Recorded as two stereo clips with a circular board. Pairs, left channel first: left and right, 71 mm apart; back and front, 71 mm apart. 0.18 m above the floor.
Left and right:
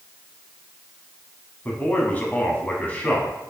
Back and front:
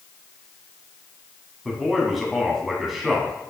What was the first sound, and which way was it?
A man speaking, 85° left.